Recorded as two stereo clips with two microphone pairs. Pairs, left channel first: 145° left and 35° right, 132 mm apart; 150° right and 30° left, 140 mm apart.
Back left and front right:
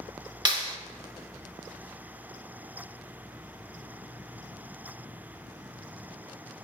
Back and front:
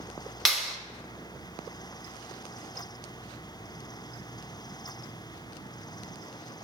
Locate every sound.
0.5 s a clap: 60° right, 1.0 m